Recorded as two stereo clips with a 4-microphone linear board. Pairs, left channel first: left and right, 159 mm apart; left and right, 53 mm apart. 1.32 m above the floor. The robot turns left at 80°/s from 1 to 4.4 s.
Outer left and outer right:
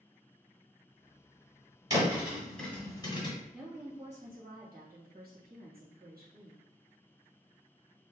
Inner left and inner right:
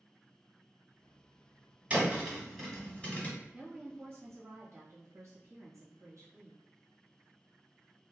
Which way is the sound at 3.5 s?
5° right.